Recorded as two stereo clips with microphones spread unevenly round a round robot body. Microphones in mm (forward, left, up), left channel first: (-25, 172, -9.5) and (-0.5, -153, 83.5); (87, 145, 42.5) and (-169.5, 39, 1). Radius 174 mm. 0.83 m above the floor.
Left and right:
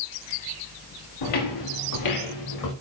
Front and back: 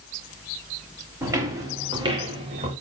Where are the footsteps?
120° left, 5 m; by 2.7 s 135° left, 5 m.